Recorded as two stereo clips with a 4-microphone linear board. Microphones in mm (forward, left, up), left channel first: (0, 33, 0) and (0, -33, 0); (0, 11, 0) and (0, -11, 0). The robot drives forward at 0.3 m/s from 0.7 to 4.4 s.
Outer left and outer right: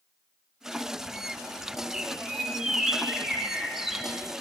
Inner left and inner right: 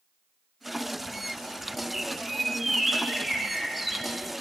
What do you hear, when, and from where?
1.9 s a bird: 10° right (ahead or behind), 1.8 m; by 4.1 s 5° right (ahead or behind), 2.5 m